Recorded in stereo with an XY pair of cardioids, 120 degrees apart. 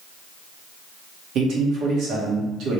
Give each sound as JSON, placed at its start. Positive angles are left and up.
{"t": 1.4, "sound": "a man speaking", "azimuth_deg": -70, "distance_m": 1.4}